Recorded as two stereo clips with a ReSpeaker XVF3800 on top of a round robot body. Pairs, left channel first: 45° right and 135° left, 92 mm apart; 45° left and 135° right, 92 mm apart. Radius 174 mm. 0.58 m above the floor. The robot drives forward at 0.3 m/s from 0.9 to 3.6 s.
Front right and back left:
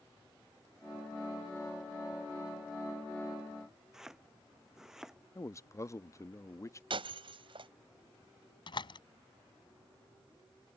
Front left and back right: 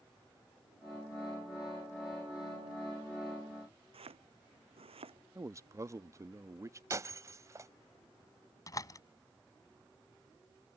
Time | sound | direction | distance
3.9 | chopping | 140° right | ?
5.3 | a man speaking | 90° right | ?
6.9 | breaking glass | 165° left | ?
8.7 | a door slam | 10° right | ?